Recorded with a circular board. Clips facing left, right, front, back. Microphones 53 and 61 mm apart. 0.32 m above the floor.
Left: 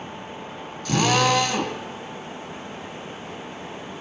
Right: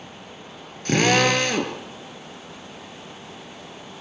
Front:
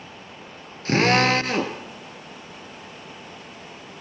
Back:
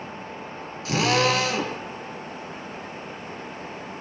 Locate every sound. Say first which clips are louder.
0.8 s a drill: right 1 dB, front 3 dB; 45° right, 5 m